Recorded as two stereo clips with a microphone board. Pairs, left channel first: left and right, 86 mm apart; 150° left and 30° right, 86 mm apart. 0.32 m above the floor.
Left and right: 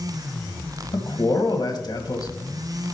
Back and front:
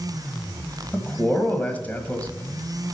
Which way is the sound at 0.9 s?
85° left.